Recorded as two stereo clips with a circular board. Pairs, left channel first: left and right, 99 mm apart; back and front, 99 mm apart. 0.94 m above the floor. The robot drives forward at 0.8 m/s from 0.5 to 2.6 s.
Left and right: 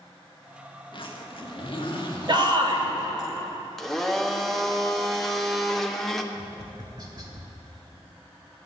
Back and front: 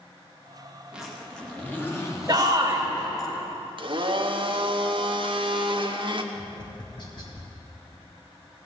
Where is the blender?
5° left, 0.8 m.